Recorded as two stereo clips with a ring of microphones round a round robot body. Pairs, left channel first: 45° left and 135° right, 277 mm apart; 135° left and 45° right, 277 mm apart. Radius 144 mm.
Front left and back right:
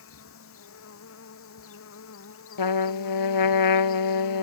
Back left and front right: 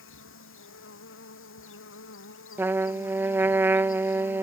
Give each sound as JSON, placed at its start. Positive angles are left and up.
{"t": 0.0, "sound": "an insect", "azimuth_deg": 90}
{"t": 2.6, "sound": "a trumpet", "azimuth_deg": 40}